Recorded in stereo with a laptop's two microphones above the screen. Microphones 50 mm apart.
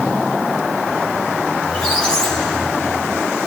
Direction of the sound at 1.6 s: 15° left (ahead or behind).